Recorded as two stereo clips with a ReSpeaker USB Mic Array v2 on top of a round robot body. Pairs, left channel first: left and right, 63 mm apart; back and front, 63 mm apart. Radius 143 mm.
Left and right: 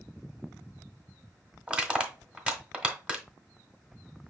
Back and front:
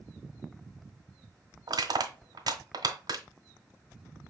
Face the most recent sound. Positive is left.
turn(degrees=-15)